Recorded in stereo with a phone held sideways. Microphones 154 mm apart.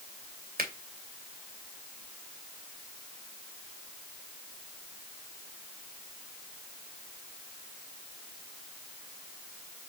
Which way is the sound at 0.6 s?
70° right (ahead or behind).